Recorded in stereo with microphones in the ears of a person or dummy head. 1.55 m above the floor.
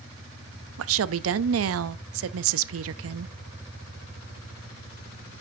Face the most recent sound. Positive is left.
turn(degrees=-70)  # may be behind; listen again after turning